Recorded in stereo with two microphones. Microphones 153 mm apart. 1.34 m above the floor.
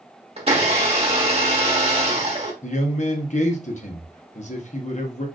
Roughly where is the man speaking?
Left.